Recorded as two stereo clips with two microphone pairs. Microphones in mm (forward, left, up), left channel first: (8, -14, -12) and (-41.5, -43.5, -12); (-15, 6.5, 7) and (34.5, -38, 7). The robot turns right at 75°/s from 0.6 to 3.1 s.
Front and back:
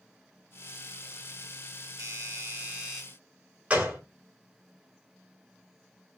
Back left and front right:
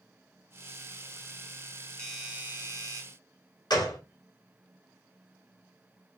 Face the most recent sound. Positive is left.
turn(degrees=145)